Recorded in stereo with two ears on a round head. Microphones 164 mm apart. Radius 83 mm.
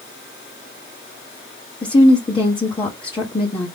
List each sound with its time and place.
1.8 s a woman speaking: 25° left (ahead or behind), 1.5 m